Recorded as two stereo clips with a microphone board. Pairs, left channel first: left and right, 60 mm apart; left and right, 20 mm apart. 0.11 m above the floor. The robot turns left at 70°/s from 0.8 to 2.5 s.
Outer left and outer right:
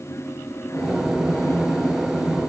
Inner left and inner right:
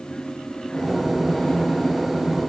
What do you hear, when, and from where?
Only background noise.